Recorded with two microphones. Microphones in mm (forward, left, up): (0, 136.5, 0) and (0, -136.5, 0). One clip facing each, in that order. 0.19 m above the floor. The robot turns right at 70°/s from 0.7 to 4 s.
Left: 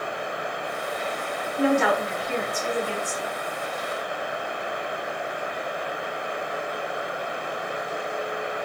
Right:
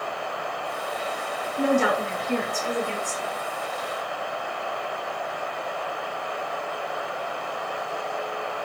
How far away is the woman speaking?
About 2.0 m.